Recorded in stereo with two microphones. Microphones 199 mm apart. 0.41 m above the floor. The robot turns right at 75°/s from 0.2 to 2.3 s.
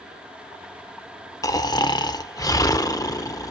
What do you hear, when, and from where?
1.4 s snoring: 15° left (ahead or behind), 0.9 m; by 3.5 s 20° left (ahead or behind), 0.9 m